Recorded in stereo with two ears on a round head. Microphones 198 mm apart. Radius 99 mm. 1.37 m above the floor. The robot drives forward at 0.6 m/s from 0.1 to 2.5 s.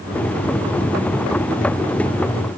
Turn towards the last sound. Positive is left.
No sound to turn to.